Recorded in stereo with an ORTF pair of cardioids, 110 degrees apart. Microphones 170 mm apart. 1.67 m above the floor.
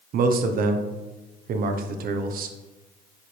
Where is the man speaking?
60° right, 1.0 m.